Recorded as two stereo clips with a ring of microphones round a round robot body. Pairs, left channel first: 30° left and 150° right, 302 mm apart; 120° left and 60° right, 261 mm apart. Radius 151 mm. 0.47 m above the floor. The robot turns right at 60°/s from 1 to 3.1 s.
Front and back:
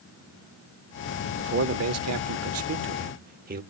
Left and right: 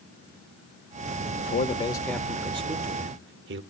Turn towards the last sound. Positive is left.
turn(degrees=-95)